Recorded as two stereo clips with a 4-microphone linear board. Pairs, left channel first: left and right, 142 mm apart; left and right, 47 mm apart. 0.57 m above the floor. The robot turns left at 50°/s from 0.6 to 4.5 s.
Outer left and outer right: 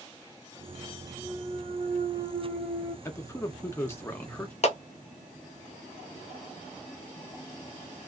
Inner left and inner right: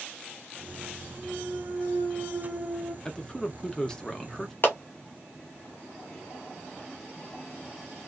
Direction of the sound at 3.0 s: 20° left (ahead or behind).